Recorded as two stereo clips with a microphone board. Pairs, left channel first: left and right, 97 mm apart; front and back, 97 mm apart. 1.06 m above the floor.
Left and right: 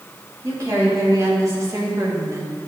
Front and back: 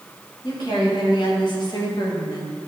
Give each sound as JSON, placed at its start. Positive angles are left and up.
{"t": 0.4, "sound": "a woman speaking", "azimuth_deg": -35, "distance_m": 2.5}